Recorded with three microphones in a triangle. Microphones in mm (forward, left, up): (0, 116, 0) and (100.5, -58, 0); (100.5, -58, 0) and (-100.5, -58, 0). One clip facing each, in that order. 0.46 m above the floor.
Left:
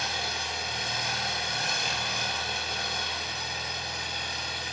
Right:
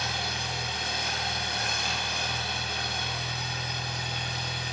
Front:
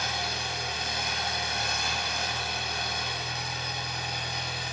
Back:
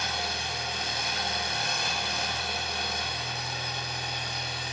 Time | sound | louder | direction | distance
0.0 | an engine running | right 1 dB, even | 90° right | 1.6 m